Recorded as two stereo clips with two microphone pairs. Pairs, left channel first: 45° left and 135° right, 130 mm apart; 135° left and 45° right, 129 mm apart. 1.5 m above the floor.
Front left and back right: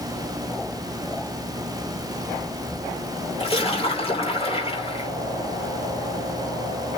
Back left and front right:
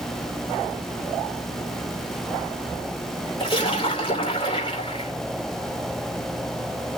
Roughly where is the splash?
Left.